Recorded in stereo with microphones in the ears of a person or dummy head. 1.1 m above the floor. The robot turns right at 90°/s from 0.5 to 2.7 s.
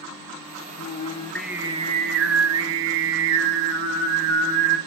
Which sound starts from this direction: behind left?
Singing, at 0.8 s.